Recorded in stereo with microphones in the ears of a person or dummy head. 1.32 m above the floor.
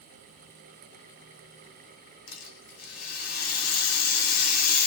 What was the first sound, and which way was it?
A rattle, 75° left (ahead or behind).